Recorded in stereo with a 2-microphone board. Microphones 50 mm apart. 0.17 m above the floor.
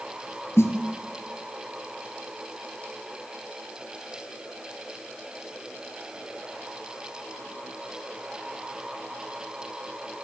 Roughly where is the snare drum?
Left.